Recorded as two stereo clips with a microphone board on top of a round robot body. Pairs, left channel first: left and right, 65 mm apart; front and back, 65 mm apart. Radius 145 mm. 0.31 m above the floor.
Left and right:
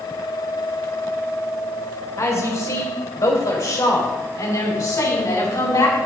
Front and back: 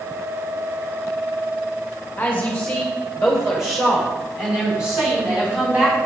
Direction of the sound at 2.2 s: 70° left.